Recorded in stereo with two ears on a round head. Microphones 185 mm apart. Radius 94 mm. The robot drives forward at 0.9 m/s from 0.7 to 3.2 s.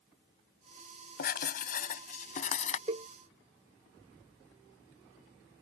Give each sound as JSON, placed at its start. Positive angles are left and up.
{"t": 1.2, "sound": "writing", "side_deg": 50}
{"t": 2.9, "sound": "a cowbell", "side_deg": -30}